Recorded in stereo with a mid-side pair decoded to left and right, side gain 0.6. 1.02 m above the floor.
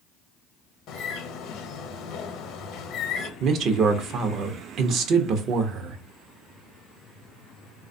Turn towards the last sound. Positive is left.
turn(degrees=-55)